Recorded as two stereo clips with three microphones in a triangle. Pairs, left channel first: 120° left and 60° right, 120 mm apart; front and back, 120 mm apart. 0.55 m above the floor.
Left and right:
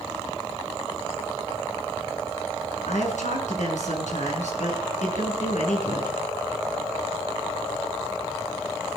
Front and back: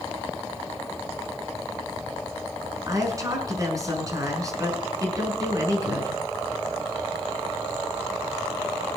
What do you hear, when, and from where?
2.9 s a woman speaking: 120° left, 5.5 m